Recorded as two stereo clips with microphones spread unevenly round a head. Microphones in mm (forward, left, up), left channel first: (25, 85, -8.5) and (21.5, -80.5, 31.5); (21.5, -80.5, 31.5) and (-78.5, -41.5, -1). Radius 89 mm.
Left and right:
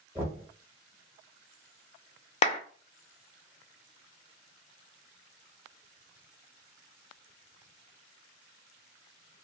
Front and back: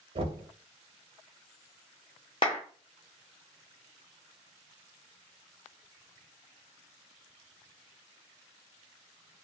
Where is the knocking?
165° right, 0.9 m.